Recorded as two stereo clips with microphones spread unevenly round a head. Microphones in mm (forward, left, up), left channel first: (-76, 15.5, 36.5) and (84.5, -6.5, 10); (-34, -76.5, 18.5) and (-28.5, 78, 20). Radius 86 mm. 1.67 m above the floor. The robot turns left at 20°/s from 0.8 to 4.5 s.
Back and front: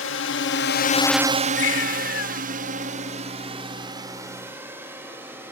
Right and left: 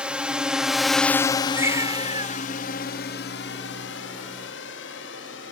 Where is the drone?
170° left; by 5.5 s 85° right.